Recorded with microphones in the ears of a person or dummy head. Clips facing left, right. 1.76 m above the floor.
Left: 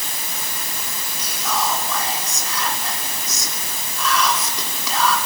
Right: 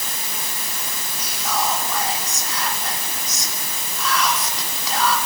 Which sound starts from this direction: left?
Whispering, at 1.2 s.